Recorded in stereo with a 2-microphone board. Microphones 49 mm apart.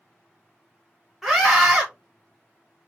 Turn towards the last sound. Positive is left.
turn(degrees=0)  # may be behind; listen again after turning